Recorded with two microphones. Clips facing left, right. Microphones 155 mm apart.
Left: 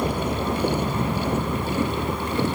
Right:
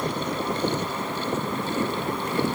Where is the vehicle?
50° left (ahead or behind); by 2.6 s 55° left (ahead or behind).